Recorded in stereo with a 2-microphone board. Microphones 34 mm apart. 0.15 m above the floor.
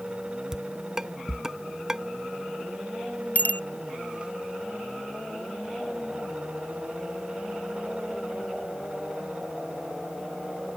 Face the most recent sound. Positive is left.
turn(degrees=50)  # may be behind; listen again after turning